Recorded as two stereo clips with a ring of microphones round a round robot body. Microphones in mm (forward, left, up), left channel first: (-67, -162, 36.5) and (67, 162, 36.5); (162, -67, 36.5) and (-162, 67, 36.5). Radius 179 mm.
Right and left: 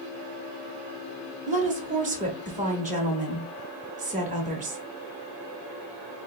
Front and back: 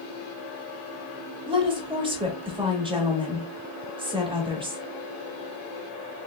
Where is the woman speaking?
100° left, 1.1 m.